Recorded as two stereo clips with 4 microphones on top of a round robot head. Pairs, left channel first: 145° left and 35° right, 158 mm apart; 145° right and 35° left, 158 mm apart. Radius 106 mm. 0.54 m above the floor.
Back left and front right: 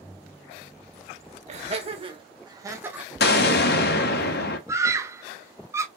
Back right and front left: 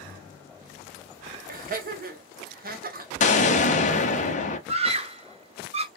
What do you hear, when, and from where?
1.5 s laughter: 10° left, 1.9 m; by 3.1 s 50° left, 1.4 m
3.2 s an explosion: 170° left, 0.8 m
4.7 s a scream: 30° left, 1.1 m